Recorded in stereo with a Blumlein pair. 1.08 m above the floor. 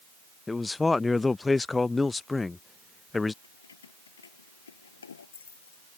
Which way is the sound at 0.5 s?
10° left.